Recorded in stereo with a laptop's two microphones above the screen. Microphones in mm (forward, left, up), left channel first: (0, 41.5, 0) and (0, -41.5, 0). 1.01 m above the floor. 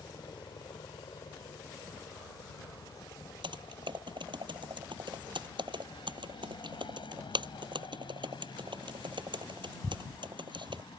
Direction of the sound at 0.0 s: 70° left (ahead or behind).